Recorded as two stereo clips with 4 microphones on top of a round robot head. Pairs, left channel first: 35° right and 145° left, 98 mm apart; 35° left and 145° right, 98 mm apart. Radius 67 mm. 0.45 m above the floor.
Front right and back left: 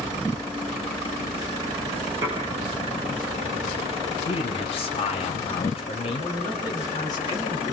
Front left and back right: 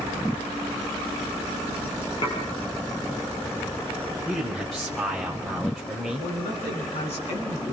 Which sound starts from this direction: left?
Dishes clattering, at 2.2 s.